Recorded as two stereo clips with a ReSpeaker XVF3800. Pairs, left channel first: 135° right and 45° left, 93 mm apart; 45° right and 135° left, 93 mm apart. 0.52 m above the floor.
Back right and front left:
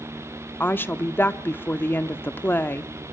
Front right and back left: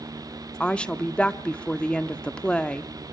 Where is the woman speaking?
110° right, 0.7 m.